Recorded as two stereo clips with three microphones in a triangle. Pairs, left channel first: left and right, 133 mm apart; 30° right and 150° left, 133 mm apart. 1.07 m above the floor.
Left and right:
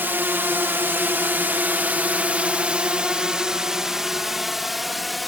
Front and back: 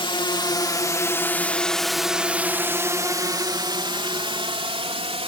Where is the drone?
25° right; by 5.3 s straight behind.